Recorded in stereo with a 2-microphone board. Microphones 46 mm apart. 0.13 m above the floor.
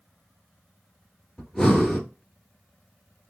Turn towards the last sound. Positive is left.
turn(degrees=10)  # may be behind; listen again after turning